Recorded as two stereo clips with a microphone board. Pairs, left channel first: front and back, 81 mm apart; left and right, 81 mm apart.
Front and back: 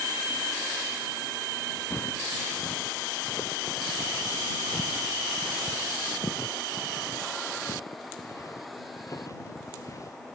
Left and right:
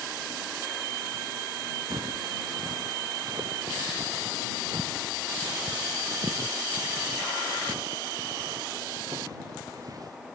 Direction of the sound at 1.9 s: 60° right.